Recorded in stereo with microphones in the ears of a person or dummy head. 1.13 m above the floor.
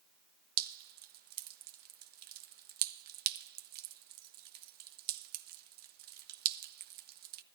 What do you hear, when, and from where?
0.6 s dripping: 55° right (ahead or behind), 0.8 m